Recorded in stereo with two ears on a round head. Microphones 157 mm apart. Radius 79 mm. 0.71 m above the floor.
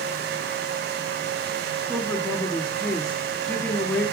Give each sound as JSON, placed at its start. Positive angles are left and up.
{"t": 1.9, "sound": "a woman speaking", "side_deg": 5, "distance_m": 1.5}